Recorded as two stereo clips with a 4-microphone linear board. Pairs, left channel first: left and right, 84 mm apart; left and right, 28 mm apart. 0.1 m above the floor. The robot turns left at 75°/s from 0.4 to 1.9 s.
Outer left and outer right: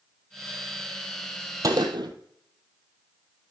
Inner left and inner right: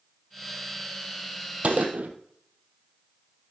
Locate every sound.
1.6 s a gunshot: 45° right (ahead or behind), 1.3 m; by 2.1 s 60° right (ahead or behind), 1.3 m